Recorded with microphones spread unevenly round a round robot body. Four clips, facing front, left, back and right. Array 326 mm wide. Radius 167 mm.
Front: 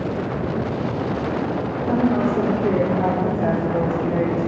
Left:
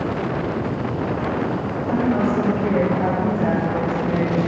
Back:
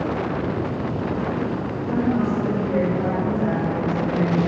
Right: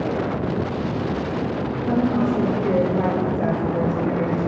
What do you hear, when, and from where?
1.8 s a woman speaking: 35° right, 7.5 m